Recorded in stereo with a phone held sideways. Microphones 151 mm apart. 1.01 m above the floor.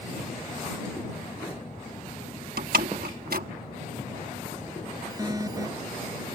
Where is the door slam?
80° right.